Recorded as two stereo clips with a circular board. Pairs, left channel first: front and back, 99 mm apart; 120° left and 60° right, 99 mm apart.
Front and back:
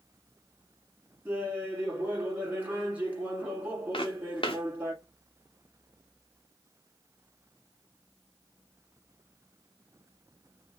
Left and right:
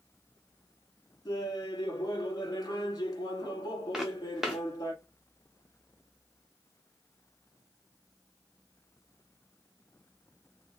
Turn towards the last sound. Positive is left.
turn(degrees=25)